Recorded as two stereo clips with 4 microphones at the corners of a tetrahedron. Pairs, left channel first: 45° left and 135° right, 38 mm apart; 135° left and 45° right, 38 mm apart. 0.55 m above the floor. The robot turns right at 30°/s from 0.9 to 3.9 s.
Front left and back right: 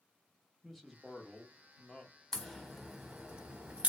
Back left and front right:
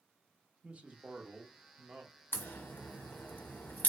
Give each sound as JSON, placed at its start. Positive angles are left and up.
{"t": 0.6, "sound": "a man speaking", "azimuth_deg": -40, "distance_m": 0.8}
{"t": 2.3, "sound": "a crack", "azimuth_deg": 125, "distance_m": 0.7}